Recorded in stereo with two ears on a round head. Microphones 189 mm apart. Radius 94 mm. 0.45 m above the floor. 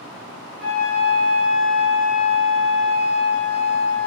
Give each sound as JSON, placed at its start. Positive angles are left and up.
{"t": 0.6, "sound": "a flute", "side_deg": 5, "distance_m": 1.7}